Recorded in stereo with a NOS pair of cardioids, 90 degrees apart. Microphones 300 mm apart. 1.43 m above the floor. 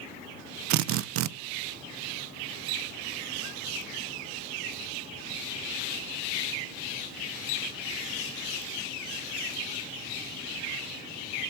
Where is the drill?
70° right, 0.6 m.